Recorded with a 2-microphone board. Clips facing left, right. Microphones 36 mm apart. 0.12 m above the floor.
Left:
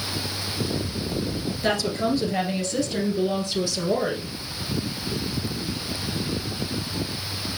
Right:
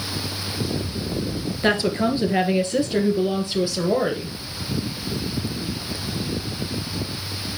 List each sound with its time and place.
1.6 s a woman speaking: 30° right (ahead or behind), 2 m; by 4.3 s 20° right (ahead or behind), 3 m